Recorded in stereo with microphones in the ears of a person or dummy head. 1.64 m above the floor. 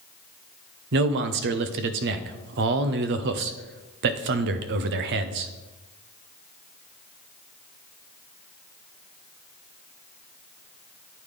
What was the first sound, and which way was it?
A man speaking, 45° right (ahead or behind).